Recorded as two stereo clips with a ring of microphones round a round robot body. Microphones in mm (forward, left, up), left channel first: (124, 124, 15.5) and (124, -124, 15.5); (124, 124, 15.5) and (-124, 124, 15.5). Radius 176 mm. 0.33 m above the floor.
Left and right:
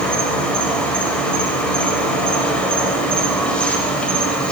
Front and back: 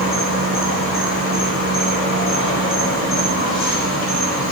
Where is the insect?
5° left, 1.0 m.